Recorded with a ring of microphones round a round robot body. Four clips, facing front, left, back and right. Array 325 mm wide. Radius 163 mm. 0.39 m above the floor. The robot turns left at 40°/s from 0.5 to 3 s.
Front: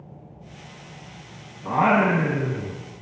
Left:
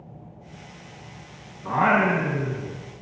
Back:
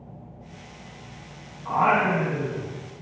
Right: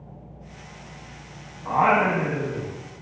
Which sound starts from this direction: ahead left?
Singing, at 1.6 s.